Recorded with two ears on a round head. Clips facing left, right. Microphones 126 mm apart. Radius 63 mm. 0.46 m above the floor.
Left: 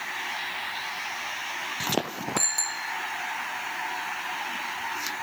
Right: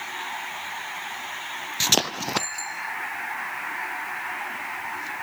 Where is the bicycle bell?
35° left (ahead or behind).